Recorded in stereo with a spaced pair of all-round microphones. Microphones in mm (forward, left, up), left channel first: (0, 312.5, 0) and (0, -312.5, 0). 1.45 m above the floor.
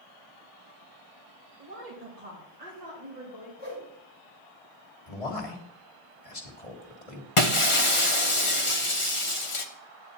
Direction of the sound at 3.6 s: 15° right (ahead or behind).